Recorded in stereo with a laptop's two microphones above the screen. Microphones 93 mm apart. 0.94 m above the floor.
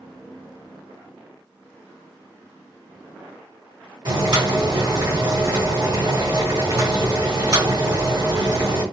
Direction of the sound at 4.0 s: 55° right (ahead or behind).